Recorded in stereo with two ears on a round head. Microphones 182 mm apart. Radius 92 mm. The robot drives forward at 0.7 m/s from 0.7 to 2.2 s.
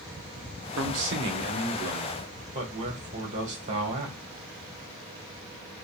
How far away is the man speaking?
About 1.1 m.